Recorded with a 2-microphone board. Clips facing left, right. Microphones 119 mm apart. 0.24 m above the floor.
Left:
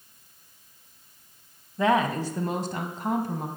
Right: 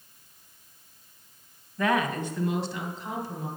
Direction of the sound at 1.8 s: 20° left (ahead or behind).